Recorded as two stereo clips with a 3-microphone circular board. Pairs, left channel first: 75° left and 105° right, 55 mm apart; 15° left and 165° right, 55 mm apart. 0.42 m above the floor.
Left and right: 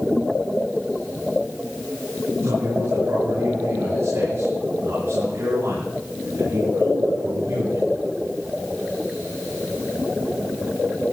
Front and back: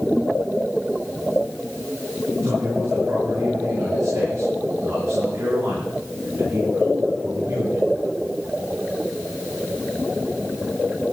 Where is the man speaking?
130° right, 8 m; by 8.0 s 135° right, 12 m.